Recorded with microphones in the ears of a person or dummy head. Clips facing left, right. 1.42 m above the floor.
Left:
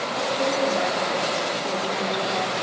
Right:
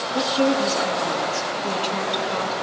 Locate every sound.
0.1 s a woman speaking: 70° right (ahead or behind), 3 m